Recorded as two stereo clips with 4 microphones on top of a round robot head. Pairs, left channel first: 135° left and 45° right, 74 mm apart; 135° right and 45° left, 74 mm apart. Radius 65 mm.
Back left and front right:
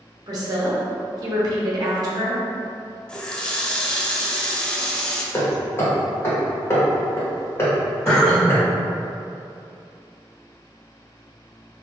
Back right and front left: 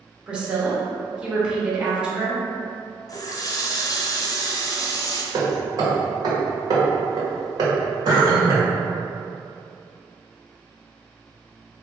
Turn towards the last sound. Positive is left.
turn(degrees=45)